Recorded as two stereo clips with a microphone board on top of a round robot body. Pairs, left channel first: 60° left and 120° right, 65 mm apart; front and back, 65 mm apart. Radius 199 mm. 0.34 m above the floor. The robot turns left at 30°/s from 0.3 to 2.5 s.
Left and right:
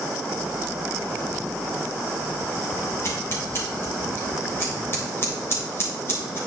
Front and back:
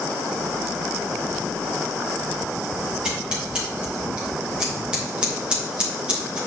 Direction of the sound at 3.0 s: 105° left.